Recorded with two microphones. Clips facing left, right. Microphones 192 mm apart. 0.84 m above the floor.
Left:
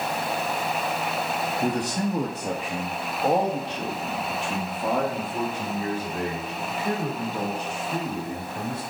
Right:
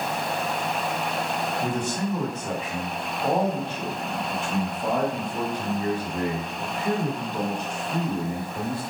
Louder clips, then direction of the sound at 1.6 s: Left 4 dB; 35° left (ahead or behind).